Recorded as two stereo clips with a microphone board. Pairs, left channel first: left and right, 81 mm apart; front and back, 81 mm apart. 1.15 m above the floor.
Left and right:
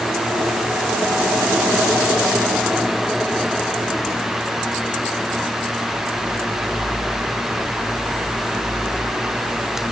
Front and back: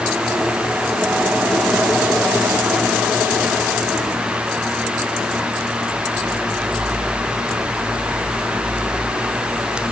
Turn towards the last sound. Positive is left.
No sound to turn to.